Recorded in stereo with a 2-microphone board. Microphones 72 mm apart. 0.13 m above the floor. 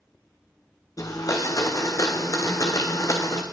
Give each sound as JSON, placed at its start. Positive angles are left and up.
{"t": 1.0, "sound": "a blender", "side_deg": 50, "distance_m": 2.0}